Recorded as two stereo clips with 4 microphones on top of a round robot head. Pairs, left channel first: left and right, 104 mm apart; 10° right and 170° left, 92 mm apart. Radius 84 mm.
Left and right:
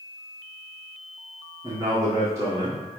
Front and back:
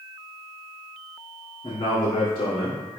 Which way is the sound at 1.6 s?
40° right.